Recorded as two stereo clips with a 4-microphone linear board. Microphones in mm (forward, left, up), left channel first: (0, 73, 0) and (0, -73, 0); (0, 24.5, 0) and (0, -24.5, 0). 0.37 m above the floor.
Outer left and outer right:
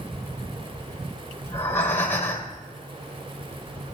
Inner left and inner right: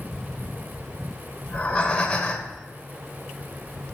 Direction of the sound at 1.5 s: 15° left (ahead or behind).